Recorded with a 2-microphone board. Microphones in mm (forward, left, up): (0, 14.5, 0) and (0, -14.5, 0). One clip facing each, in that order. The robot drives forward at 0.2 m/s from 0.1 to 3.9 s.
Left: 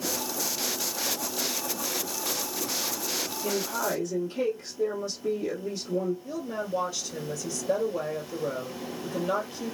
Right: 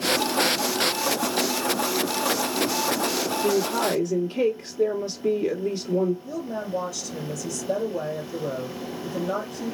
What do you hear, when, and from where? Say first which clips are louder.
3.4 s a woman speaking: right 6 dB; 30° right (ahead or behind), 1.5 m
6.2 s a woman speaking: right 2 dB; 20° left (ahead or behind), 2.5 m